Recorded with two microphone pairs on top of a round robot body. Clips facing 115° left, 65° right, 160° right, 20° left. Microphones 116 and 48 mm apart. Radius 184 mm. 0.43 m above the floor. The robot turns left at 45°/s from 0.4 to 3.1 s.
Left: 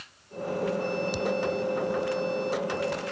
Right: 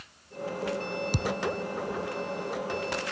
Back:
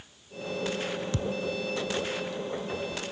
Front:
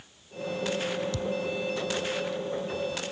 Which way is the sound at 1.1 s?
105° right.